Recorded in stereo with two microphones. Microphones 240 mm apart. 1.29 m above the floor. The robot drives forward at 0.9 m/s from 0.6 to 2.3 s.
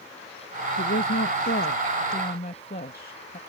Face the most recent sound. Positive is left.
turn(degrees=40)  # may be behind; listen again after turning